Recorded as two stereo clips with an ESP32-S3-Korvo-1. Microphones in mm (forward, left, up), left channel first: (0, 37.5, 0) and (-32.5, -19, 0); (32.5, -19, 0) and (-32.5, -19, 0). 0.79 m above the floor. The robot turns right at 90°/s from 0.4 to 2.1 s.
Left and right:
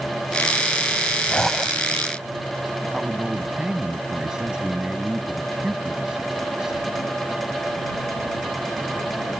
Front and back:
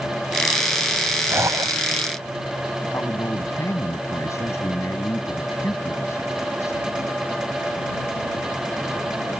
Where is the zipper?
130° left; by 2.0 s 170° right.